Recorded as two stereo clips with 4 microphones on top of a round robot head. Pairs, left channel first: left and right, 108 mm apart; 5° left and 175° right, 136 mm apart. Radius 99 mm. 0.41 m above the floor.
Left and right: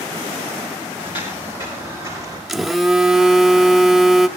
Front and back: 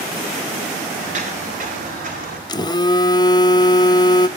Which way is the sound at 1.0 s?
150° left.